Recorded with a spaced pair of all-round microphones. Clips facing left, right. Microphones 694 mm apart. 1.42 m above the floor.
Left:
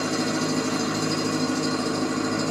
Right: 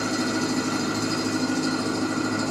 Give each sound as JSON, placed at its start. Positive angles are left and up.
{"t": 0.0, "sound": "an engine running", "side_deg": 10, "distance_m": 1.4}